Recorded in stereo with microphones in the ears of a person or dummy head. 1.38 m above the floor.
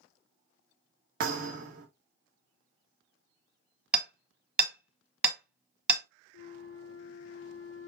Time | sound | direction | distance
1.2 | a thud | 55° right (ahead or behind) | 1.4 m
3.9 | hammering | 10° right (ahead or behind) | 1.4 m
6.3 | a flute | 65° left (ahead or behind) | 0.7 m